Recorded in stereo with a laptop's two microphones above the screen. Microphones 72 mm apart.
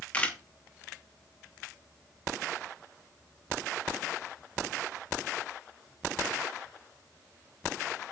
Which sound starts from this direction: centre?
A camera shutter, at 0.1 s.